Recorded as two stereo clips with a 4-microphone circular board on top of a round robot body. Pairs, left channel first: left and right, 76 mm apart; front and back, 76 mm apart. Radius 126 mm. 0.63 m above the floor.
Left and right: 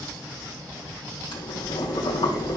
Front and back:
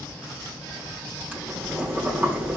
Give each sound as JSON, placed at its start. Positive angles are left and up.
{"t": 1.3, "sound": "boiling", "azimuth_deg": 110, "distance_m": 4.0}